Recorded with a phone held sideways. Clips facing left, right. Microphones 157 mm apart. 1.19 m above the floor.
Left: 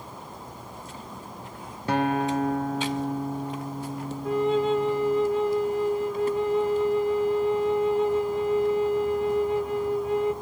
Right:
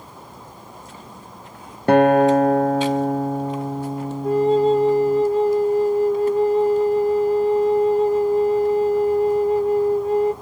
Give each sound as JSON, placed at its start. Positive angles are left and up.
{"t": 1.9, "sound": "a guitar", "side_deg": -65, "distance_m": 0.5}
{"t": 4.2, "sound": "a flute", "side_deg": -40, "distance_m": 0.6}